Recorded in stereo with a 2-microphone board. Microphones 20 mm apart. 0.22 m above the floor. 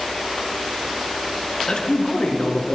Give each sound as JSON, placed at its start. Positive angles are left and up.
{"t": 1.7, "sound": "a man speaking", "side_deg": 60, "distance_m": 2.5}